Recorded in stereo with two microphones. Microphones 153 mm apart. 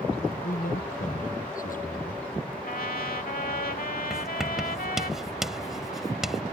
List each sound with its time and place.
0.4 s a man speaking: 60° left (ahead or behind)
2.6 s a trumpet: 70° left (ahead or behind)
4.1 s writing: 5° right (ahead or behind)